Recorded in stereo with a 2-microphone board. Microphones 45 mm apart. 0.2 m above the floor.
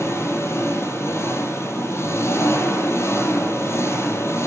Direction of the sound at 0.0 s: 80° left.